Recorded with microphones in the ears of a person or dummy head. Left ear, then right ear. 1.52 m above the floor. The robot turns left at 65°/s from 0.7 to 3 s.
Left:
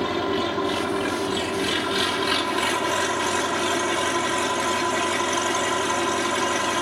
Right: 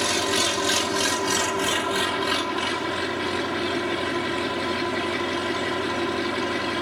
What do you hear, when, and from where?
0.0 s an engine running: 70° right; by 6.8 s 140° left